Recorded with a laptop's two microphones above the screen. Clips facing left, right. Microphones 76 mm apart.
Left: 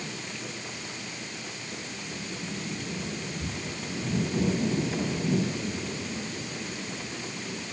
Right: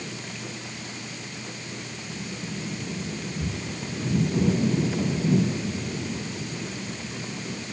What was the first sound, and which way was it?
Only background noise.